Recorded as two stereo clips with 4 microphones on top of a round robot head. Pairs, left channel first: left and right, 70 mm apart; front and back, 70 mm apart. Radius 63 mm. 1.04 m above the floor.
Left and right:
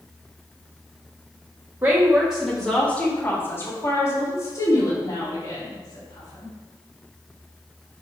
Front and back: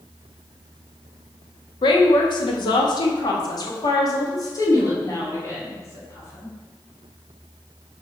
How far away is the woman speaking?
About 1.2 m.